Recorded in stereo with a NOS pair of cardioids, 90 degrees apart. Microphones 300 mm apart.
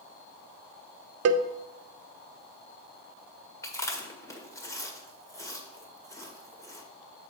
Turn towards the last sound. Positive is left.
turn(degrees=10)